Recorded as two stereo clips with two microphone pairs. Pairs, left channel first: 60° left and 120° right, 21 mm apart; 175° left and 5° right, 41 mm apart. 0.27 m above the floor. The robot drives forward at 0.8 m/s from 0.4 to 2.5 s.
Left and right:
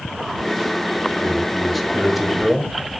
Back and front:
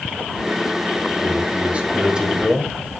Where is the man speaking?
20° right, 1.8 m; by 2.8 s 65° right, 1.3 m.